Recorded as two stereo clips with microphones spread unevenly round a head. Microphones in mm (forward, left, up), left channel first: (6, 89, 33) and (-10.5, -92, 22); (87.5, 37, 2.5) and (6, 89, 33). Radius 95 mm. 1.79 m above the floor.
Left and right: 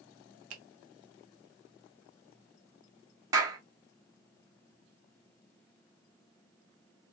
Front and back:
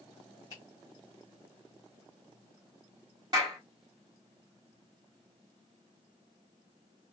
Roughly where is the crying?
I don't hear crying.